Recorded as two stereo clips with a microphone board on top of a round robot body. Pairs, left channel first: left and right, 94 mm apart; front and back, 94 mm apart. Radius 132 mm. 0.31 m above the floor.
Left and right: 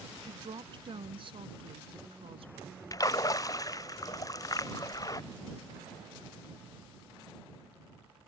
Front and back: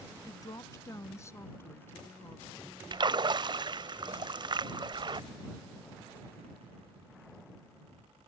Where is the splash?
140° left.